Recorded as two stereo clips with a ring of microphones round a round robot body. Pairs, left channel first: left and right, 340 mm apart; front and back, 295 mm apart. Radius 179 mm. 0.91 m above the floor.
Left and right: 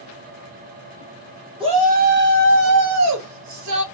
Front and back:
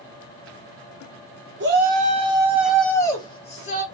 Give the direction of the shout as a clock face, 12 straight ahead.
5 o'clock.